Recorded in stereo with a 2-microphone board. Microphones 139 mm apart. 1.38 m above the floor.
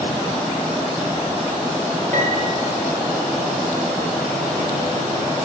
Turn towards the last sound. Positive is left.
turn(degrees=-70)  # may be behind; listen again after turning